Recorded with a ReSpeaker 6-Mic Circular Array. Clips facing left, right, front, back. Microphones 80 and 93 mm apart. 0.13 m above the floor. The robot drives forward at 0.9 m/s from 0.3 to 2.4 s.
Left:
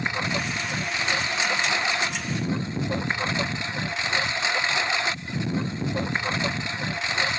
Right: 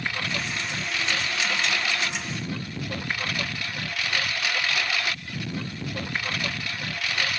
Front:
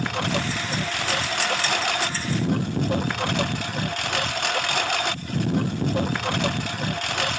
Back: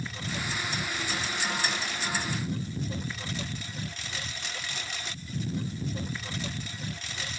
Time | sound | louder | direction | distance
0.0 | a lawn mower | left 3 dB, front 10 dB | 20° left | ?